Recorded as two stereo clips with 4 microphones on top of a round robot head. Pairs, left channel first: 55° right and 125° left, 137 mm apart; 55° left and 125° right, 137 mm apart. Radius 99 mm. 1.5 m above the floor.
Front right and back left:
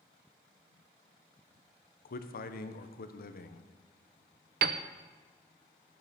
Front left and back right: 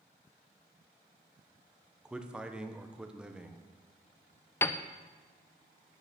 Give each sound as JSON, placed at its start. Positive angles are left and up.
{"t": 2.0, "sound": "a man speaking", "azimuth_deg": -40, "distance_m": 1.2}
{"t": 4.6, "sound": "a piano", "azimuth_deg": 130, "distance_m": 0.6}